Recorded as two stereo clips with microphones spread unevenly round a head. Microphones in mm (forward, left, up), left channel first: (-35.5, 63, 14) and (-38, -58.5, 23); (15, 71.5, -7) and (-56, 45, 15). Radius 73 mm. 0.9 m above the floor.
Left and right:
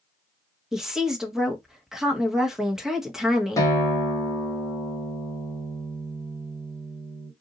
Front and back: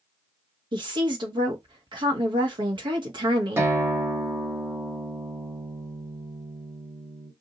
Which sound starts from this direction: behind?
A woman speaking, at 0.7 s.